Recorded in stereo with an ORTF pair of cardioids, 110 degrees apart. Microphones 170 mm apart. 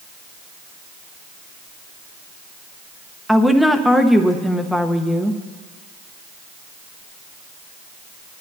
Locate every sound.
3.3 s a woman speaking: straight ahead, 1.0 m